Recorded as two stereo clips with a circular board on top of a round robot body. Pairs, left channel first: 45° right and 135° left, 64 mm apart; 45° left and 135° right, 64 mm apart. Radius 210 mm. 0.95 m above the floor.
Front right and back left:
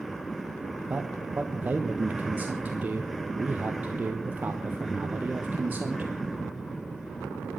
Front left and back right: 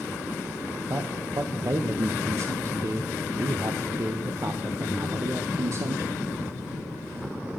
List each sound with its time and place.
0.9 s a man speaking: 165° right, 1.5 m